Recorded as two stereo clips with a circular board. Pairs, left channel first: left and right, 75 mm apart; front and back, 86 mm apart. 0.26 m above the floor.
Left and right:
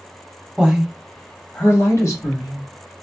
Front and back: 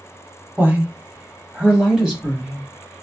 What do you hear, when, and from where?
0.6 s a woman speaking: 150° right, 1.1 m; by 2.7 s 90° left, 1.7 m